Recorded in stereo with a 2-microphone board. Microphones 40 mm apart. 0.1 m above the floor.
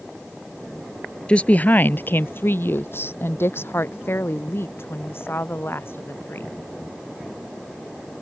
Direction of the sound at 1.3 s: 25° left (ahead or behind).